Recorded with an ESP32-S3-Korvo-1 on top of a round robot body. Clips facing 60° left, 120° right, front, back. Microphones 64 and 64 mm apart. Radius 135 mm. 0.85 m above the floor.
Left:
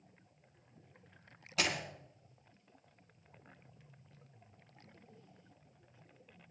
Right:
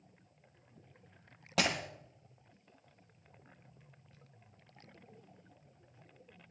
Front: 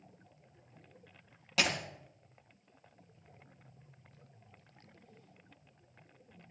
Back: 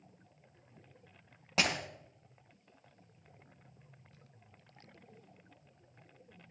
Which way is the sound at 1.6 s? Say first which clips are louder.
Right 3 dB, even; 120° right.